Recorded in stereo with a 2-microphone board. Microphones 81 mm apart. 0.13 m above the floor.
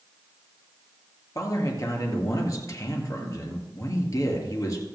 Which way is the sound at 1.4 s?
45° left (ahead or behind).